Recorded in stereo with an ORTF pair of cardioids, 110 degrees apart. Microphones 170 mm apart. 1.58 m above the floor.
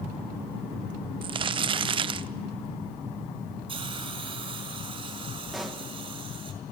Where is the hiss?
30° right, 4.5 m.